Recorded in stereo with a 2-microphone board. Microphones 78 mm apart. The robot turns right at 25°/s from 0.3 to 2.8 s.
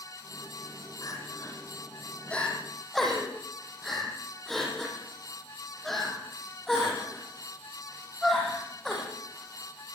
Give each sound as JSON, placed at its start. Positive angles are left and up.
{"t": 1.0, "sound": "crying", "side_deg": 50, "distance_m": 9.0}